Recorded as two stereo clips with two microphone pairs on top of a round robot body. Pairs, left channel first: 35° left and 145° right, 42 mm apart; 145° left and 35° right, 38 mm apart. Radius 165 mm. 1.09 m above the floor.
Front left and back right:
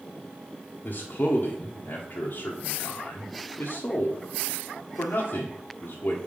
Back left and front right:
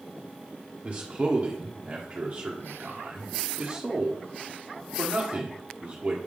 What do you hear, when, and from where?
0.8 s a man speaking: 30° left, 1.1 m